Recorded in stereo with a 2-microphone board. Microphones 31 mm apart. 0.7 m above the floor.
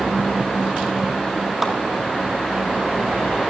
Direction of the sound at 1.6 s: 5° right (ahead or behind).